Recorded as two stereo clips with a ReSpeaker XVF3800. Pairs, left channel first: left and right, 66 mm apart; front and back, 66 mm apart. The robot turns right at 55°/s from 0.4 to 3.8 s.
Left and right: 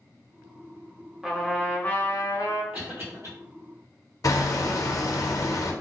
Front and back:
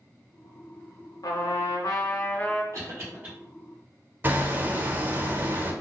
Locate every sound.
1.2 s a trumpet: 5° right, 0.8 m; by 2.6 s 75° left, 0.8 m
2.7 s a cough: 150° right, 2.0 m; by 3.3 s 115° right, 2.0 m
4.2 s hammering: 125° left, 0.6 m